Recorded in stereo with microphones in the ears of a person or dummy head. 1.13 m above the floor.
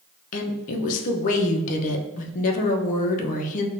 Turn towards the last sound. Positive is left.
turn(degrees=40)  # may be behind; listen again after turning